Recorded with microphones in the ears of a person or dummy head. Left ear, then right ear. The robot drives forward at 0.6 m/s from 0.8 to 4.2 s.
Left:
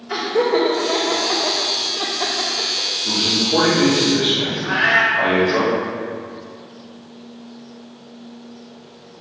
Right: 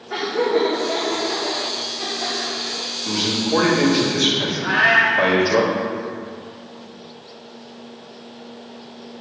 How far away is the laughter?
About 1.1 m.